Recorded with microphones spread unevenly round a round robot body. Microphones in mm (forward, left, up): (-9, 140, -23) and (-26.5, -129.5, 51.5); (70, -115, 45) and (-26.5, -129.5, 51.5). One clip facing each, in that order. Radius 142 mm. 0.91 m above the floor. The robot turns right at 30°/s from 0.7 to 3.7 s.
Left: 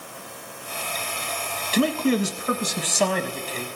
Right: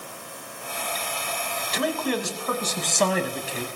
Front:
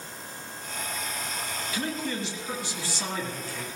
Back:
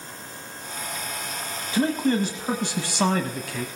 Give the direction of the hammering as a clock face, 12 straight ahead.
No hammering in this recording.